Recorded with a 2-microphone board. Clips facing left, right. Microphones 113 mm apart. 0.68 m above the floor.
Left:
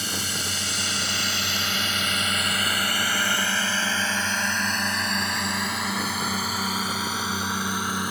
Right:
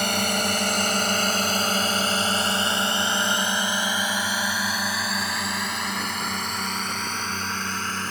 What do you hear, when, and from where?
0.0 s a drone: 60° right (ahead or behind); by 8.1 s 10° left (ahead or behind)